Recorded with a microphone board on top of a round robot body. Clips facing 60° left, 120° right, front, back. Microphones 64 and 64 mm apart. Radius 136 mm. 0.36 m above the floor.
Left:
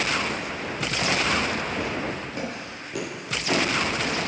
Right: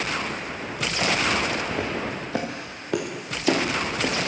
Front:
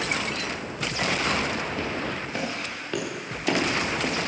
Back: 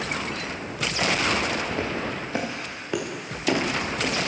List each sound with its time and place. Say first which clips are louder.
1.7 s footsteps: right 1 dB, back 1 dB; 120° right, 4 m; by 4.3 s 80° right, 3.5 m